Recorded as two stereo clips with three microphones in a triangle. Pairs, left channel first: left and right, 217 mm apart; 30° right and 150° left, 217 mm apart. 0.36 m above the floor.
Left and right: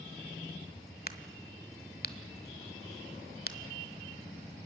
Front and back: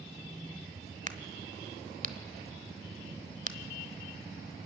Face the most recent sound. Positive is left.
turn(degrees=110)